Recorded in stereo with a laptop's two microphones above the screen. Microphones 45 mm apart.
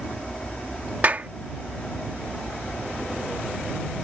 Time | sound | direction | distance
0.0 | an aircraft | 25° left (ahead or behind) | ?
1.0 | a clap | 35° right (ahead or behind) | ?